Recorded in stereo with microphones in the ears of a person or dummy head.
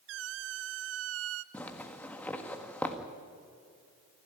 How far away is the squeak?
About 0.6 m.